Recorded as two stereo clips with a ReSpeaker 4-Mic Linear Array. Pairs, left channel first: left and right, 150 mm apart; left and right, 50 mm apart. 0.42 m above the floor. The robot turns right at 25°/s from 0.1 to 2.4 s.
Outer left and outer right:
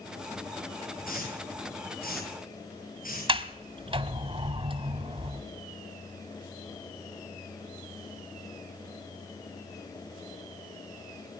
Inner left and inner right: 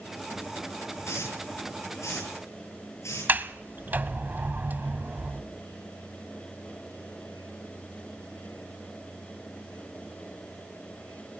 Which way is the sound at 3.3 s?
35° right (ahead or behind).